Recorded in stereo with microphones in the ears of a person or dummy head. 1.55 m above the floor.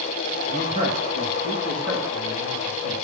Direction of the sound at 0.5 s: 35° right (ahead or behind).